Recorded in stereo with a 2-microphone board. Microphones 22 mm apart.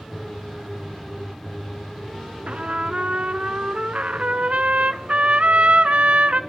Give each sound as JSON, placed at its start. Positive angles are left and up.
{"t": 2.5, "sound": "a trumpet", "side_deg": -55, "distance_m": 0.5}